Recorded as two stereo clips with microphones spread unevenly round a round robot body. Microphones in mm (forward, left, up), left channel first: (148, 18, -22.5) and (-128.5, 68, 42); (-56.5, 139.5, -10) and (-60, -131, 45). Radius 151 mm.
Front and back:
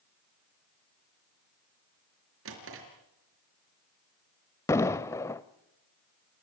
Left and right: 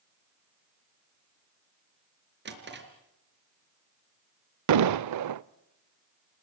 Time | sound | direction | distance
2.5 | a drawer | 140° right | 4.5 m
4.7 | an explosion | 95° right | 0.7 m